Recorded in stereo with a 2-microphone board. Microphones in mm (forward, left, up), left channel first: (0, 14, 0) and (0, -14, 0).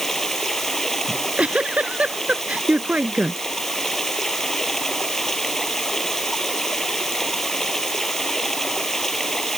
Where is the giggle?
45° right (ahead or behind).